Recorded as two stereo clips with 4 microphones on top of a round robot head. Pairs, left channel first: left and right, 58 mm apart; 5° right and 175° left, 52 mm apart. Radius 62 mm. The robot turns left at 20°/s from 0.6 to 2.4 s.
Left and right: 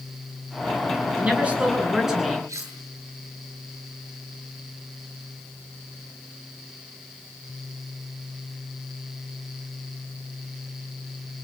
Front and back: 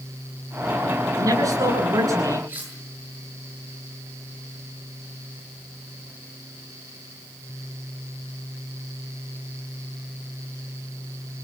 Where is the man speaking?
155° right, 10 m; by 2.4 s straight behind, 10 m.